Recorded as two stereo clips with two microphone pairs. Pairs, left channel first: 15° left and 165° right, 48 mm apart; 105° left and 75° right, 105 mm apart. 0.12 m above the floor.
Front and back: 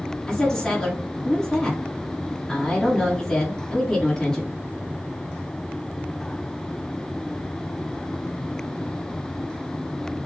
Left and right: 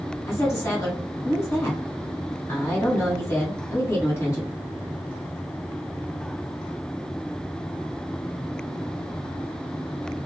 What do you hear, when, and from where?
0.3 s a woman speaking: 80° left, 1.8 m